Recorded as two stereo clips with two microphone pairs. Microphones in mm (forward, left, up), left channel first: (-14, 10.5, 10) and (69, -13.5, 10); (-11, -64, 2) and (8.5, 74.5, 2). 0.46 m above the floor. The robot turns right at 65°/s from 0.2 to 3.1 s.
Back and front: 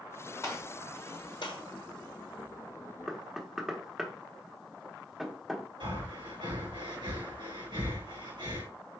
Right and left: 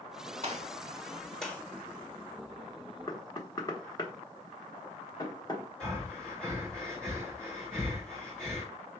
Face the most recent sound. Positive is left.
turn(degrees=-15)